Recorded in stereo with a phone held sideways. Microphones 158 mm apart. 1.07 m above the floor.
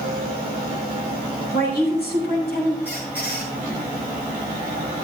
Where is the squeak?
85° left, 6 m.